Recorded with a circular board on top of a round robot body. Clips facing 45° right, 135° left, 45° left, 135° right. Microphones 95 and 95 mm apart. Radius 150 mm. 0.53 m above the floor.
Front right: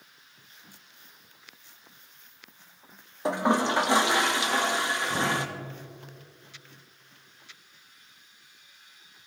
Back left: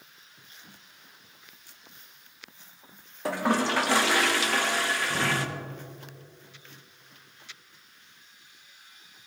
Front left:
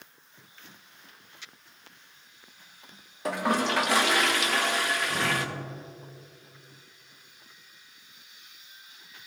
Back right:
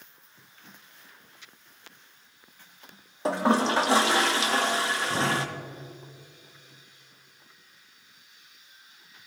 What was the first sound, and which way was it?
A toilet flushing, 100° right.